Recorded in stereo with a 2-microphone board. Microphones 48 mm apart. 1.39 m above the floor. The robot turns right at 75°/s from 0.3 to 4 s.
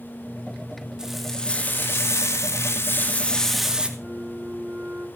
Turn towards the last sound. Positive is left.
turn(degrees=-35)  # may be behind; listen again after turning